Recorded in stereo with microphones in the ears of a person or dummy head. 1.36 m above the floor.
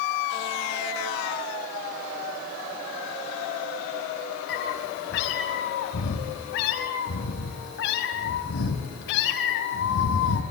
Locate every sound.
4.5 s a cat meowing: 65° left (ahead or behind), 5 m